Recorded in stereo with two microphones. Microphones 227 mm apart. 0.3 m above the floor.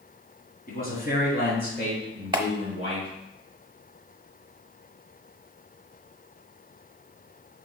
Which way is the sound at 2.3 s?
20° right (ahead or behind).